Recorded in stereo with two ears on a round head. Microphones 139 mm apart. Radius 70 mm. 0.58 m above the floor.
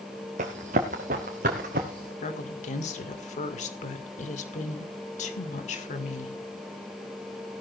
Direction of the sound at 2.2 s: 50° left (ahead or behind).